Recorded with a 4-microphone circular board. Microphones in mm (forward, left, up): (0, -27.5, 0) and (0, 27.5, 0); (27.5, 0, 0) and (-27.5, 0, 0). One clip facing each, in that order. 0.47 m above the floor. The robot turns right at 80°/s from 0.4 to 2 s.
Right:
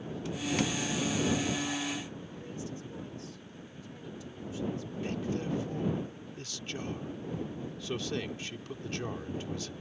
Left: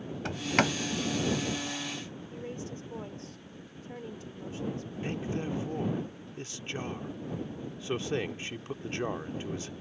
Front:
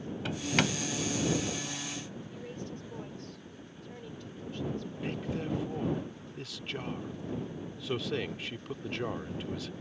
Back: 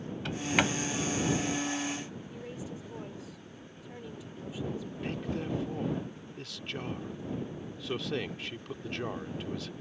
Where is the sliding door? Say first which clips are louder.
Left 4 dB, back 1 dB; 90° left; by 0.7 s 115° left.